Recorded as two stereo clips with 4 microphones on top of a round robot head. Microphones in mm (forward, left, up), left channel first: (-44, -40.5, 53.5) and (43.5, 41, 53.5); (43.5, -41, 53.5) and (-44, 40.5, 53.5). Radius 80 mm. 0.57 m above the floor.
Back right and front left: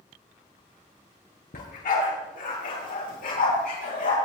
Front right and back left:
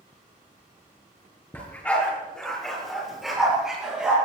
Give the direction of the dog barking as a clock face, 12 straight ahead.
4 o'clock.